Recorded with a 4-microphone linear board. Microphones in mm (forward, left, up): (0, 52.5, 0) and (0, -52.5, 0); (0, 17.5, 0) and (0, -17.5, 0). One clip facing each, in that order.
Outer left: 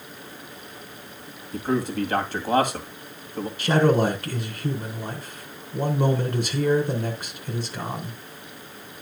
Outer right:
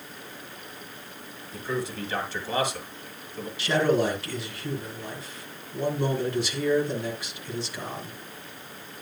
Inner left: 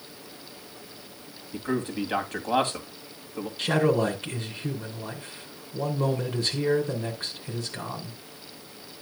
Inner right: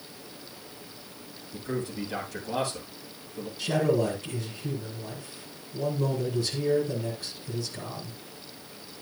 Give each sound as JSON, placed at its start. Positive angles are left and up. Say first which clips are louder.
{"t": 1.5, "sound": "a man speaking", "louder": "outer left 6 dB, inner left 4 dB", "side_deg": 50, "distance_m": 2.0}
{"t": 3.6, "sound": "a man speaking", "louder": "outer left 3 dB, inner left 2 dB", "side_deg": 45, "distance_m": 2.5}